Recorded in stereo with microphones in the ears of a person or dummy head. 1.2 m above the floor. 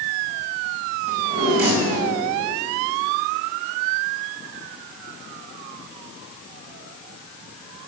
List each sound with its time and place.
1.1 s a drawer: 50° right (ahead or behind), 5.5 m